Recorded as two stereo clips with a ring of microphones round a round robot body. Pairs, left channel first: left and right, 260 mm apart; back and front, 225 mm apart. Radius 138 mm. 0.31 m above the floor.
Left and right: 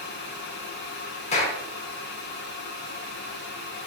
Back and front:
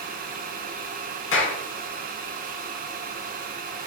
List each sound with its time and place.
1.3 s a clap: 155° left, 3.5 m